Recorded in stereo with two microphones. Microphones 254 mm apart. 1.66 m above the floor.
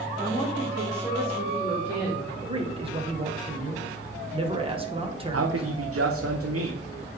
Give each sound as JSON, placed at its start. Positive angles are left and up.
{"t": 0.2, "sound": "a woman speaking", "side_deg": -25, "distance_m": 1.9}
{"t": 2.4, "sound": "a man speaking", "side_deg": -20, "distance_m": 1.3}
{"t": 5.3, "sound": "a man speaking", "side_deg": -65, "distance_m": 0.8}